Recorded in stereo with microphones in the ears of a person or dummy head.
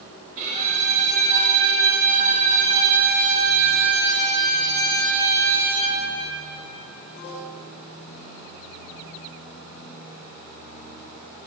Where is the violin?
45° right (ahead or behind), 1.5 m.